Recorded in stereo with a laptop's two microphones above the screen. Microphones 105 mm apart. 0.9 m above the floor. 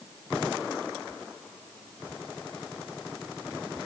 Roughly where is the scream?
No scream in this recording.